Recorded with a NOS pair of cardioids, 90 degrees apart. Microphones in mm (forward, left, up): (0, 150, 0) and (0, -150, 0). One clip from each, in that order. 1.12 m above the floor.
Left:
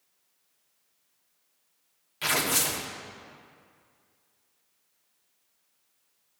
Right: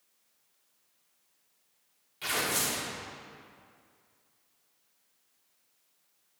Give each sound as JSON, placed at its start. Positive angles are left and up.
{"t": 2.2, "sound": "tearing paper", "azimuth_deg": 45, "distance_m": 1.2}